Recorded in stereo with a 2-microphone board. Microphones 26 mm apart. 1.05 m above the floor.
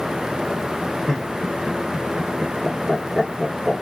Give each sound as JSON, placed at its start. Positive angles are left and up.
{"t": 1.1, "sound": "laughter", "side_deg": 15, "distance_m": 1.6}